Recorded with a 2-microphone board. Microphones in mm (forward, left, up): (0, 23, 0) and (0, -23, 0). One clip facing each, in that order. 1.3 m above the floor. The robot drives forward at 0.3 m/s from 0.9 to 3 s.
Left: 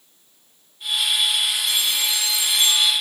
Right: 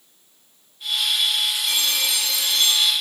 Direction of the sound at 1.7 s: 65° right (ahead or behind).